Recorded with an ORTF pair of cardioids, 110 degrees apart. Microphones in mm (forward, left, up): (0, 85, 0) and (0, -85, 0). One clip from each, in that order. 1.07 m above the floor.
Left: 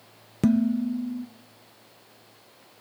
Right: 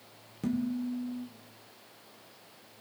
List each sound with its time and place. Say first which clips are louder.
0.4 s dishes clattering: left 9 dB; 60° left, 0.6 m